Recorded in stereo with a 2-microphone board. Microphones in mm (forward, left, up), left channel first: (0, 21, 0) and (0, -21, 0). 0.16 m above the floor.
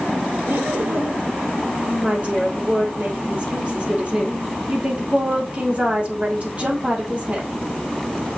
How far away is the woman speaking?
About 4 m.